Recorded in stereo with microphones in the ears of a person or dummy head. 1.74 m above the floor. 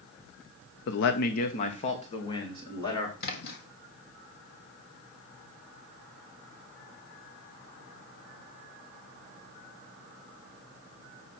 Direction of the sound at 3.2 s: 70° left (ahead or behind).